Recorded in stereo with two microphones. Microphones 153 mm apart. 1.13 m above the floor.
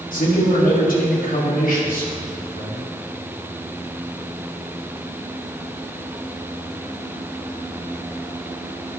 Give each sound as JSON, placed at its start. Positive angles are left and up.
{"t": 0.1, "sound": "a man speaking", "side_deg": 65, "distance_m": 2.0}